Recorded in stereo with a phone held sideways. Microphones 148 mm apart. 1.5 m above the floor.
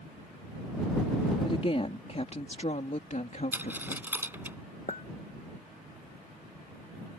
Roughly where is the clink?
Left.